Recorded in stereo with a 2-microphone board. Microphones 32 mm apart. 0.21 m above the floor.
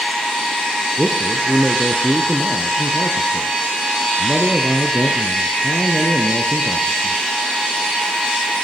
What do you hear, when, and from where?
1.0 s a man speaking: 5° right (ahead or behind), 3 m